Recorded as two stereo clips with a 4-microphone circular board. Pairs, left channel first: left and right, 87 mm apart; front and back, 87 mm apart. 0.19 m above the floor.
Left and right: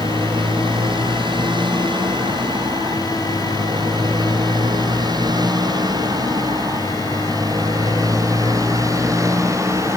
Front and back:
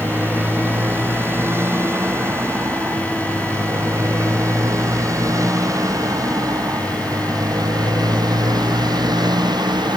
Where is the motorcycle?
115° right; by 10.0 s 145° right.